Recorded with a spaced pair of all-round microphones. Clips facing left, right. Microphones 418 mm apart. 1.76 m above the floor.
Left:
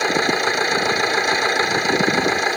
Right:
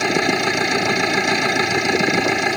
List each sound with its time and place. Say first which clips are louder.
0.0 s a machine running: right 1 dB; 45° right (ahead or behind)